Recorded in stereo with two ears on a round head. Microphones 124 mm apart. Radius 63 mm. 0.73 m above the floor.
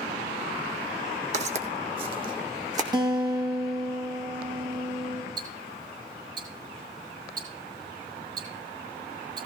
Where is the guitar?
30° right (ahead or behind), 3 m.